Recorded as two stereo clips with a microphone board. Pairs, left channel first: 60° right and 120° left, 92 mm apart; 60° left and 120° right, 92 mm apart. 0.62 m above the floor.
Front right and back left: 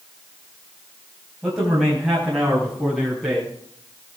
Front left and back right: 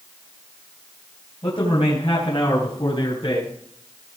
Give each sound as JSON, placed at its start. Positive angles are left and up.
{"t": 1.4, "sound": "a man speaking", "azimuth_deg": 35, "distance_m": 3.5}